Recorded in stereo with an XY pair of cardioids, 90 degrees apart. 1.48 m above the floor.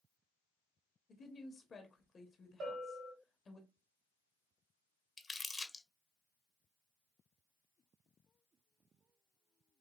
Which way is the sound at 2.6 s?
70° right.